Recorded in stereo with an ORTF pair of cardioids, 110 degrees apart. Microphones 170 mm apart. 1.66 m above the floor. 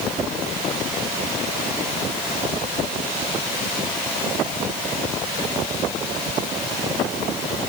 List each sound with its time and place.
Only background noise.